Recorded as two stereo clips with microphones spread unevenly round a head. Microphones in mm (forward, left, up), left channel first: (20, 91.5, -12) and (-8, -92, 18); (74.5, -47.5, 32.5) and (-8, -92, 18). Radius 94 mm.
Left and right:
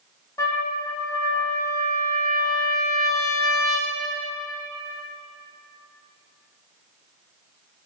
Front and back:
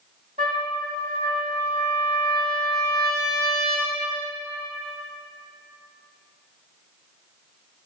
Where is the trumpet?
160° left, 1.9 m.